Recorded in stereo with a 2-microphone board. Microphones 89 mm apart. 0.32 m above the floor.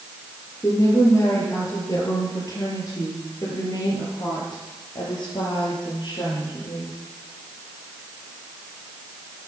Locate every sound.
0.6 s a woman speaking: 35° left (ahead or behind), 6 m; by 7.0 s 60° left (ahead or behind), 7.5 m